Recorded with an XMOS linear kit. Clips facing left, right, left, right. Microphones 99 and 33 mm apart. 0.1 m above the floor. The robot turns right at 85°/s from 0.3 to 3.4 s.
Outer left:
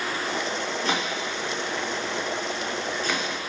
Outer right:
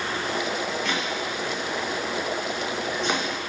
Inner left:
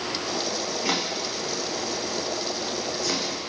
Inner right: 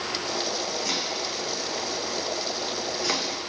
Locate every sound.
0.8 s chopping: 35° left (ahead or behind), 1.3 m; by 3.5 s 5° left (ahead or behind), 1.3 m